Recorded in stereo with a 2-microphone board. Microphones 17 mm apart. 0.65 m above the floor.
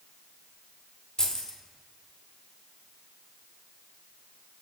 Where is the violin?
I don't hear a violin.